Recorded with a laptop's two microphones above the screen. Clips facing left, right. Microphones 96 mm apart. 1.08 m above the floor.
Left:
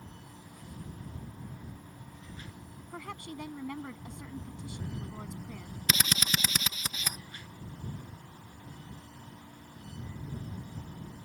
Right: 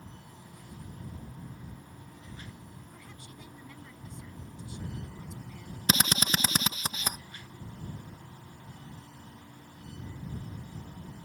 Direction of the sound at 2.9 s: 80° left.